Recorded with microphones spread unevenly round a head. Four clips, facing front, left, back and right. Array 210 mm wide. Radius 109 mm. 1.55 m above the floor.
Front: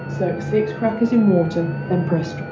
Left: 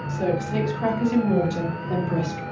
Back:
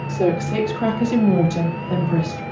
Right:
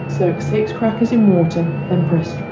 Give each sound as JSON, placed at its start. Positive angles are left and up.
{"t": 0.1, "sound": "a woman speaking", "azimuth_deg": -105, "distance_m": 2.5}